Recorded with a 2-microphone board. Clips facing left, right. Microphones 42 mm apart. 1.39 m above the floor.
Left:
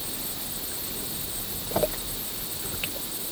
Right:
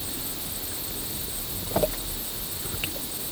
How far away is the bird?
I don't hear a bird.